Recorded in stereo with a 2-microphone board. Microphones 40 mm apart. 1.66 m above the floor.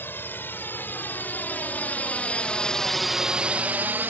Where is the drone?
65° left (ahead or behind); by 4.1 s 60° right (ahead or behind).